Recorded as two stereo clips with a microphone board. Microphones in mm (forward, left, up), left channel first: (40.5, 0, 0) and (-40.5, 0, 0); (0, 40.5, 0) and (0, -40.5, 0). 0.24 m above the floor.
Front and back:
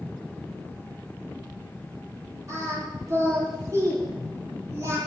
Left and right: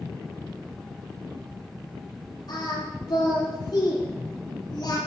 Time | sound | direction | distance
2.5 | singing | 130° left | 7 m